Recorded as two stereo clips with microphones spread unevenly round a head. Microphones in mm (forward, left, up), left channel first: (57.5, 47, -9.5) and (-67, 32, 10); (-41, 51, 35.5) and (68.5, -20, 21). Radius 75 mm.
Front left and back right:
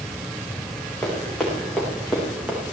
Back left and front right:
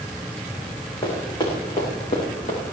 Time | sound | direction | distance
1.0 | running footsteps | 90° left | 7 m